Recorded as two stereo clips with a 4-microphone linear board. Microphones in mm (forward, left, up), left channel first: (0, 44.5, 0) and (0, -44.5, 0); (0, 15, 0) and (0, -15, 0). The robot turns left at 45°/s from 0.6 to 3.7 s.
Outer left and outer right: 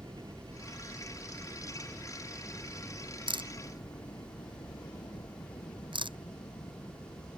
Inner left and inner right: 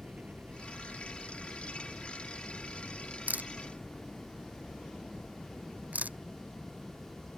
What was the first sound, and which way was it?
A helicopter, 105° right.